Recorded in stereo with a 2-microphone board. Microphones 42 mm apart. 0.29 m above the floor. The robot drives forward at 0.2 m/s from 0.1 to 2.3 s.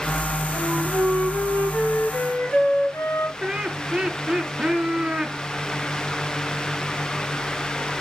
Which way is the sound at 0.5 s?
70° left (ahead or behind).